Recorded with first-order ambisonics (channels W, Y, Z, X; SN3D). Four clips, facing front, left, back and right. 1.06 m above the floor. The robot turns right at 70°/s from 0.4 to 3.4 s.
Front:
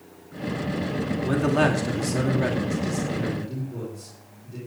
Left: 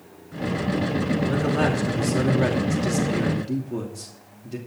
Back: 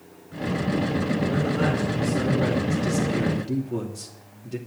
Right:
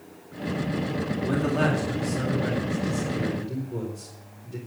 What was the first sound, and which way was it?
A man speaking, 15° right.